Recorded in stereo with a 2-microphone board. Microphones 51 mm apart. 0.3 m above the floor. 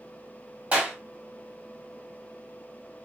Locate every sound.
0.7 s a clap: 25° right (ahead or behind), 1.3 m